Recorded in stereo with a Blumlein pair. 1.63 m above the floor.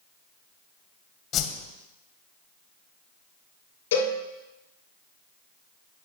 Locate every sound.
1.3 s a whoosh: 30° left, 1.4 m
3.9 s a cowbell: 55° left, 5.5 m